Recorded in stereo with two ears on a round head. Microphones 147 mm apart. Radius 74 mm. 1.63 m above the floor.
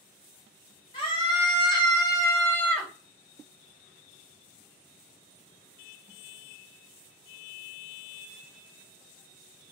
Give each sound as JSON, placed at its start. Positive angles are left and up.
{"t": 0.9, "sound": "a scream", "side_deg": 30, "distance_m": 1.5}